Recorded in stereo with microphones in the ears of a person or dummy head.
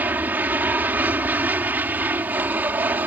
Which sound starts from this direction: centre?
An aircraft, at 0.0 s.